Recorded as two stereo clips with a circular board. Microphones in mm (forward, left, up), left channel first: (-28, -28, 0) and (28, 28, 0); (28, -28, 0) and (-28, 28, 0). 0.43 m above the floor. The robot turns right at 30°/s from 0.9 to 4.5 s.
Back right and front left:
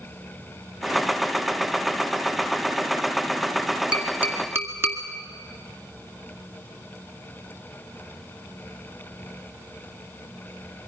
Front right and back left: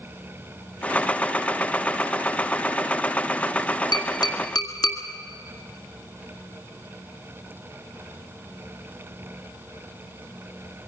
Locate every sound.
3.9 s tapping: 30° right, 2 m; by 5.0 s 15° right, 2 m